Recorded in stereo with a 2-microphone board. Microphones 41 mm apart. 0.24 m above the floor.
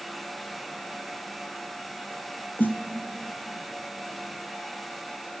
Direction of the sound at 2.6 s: 55° left (ahead or behind).